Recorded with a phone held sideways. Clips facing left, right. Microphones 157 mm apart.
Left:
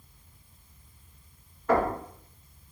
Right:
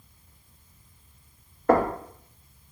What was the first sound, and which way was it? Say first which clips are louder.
Knocking: right 3 dB; 50° right (ahead or behind).